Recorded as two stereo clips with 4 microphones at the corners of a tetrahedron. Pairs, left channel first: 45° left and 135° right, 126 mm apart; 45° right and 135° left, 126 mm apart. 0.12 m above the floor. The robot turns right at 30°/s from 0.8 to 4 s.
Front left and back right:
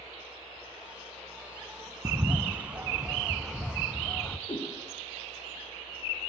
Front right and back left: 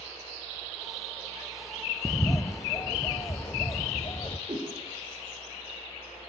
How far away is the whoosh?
About 5 m.